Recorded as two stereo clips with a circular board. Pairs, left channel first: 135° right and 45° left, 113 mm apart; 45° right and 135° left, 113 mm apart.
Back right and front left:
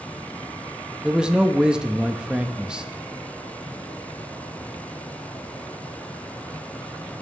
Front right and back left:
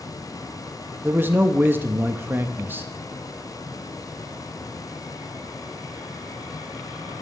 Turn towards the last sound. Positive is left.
turn(degrees=115)